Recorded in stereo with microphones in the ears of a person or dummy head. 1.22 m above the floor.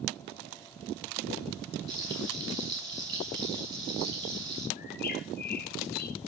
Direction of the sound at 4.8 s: 50° left (ahead or behind).